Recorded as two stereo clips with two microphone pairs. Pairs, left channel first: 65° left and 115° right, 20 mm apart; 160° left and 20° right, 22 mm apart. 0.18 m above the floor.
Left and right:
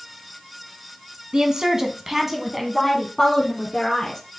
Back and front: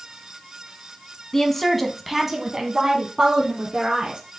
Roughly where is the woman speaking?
Behind right.